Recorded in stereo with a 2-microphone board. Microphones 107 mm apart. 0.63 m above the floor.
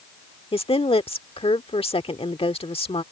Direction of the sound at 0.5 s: 60° left (ahead or behind).